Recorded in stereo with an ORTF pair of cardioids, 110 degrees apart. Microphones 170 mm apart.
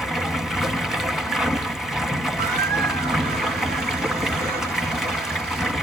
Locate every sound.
0.0 s running water: straight ahead, 1.3 m
2.4 s a squeak: 70° right, 1.2 m